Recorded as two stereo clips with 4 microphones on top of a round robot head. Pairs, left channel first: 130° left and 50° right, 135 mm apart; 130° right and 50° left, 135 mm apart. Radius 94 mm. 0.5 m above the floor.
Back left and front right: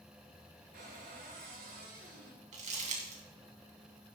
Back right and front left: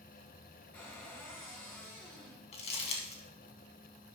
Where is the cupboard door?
55° right, 5.5 m.